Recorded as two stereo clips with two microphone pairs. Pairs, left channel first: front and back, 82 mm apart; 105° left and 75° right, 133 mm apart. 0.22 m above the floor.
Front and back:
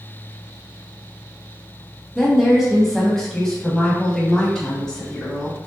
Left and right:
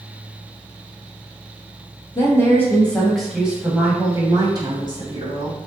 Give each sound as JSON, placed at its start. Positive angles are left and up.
{"t": 2.1, "sound": "a woman speaking", "azimuth_deg": 95, "distance_m": 1.1}